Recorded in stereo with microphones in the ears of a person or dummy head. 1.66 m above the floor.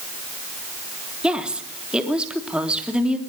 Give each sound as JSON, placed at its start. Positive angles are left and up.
{"t": 1.2, "sound": "a woman speaking", "side_deg": 5, "distance_m": 3.0}